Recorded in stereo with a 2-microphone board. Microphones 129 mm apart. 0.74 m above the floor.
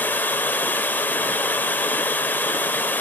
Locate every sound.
0.0 s running water: 15° left (ahead or behind), 1.4 m